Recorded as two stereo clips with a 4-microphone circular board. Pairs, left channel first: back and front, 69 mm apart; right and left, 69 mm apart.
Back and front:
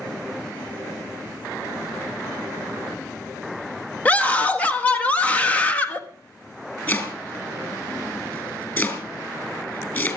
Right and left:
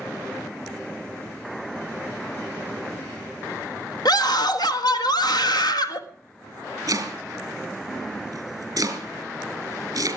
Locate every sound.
4.0 s a scream: 110° right, 1.5 m
6.9 s chopping: 125° left, 3 m